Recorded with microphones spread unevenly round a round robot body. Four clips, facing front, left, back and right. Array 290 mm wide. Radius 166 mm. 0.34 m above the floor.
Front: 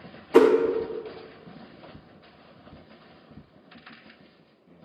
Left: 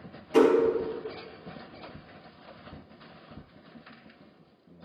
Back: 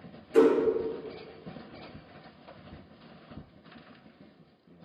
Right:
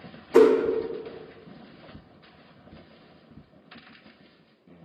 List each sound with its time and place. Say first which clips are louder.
0.3 s a whoosh: right 4 dB, front 4 dB; 5° right, 0.5 m